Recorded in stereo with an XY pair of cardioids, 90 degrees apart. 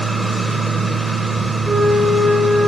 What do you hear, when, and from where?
0.0 s a machine running: 20° right, 1.1 m
1.6 s a flute: 35° right, 3 m